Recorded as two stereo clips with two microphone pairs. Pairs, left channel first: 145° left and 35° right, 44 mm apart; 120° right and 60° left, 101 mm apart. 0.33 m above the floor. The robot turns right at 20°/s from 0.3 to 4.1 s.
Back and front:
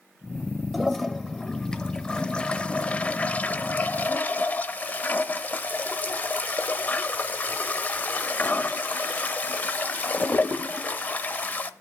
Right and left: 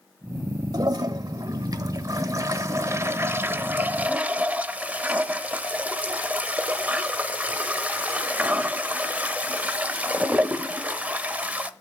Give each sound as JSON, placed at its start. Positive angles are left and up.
{"t": 0.7, "sound": "a toilet flushing", "azimuth_deg": 60, "distance_m": 0.8}